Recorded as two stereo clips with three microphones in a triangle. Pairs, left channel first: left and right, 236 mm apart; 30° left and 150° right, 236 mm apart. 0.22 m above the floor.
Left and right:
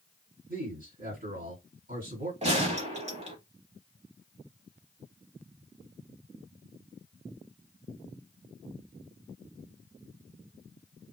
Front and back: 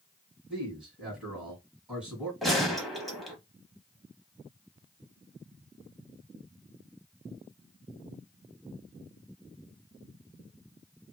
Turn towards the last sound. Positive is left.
turn(degrees=-60)